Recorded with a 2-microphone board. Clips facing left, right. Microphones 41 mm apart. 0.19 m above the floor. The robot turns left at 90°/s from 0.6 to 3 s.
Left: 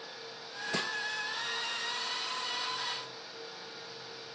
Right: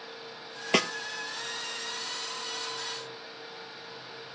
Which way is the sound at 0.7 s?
80° right.